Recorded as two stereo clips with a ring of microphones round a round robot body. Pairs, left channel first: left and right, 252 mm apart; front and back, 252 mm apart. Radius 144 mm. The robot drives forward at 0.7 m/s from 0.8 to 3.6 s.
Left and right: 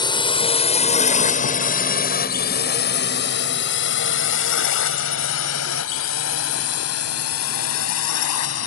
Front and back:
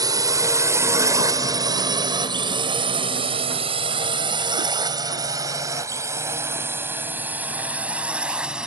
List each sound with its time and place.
0.0 s a drone: 130° left; by 8.7 s 95° left